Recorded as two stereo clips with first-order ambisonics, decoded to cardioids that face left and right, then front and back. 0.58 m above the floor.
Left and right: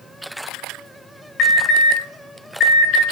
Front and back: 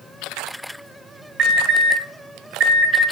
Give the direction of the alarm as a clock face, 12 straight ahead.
8 o'clock.